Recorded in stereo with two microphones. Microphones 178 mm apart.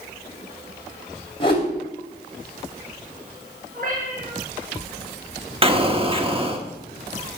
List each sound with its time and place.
1.4 s a whoosh: 30° left (ahead or behind), 3 m
3.7 s a cat meowing: 55° right (ahead or behind), 4.5 m
5.6 s an explosion: 30° right (ahead or behind), 1.1 m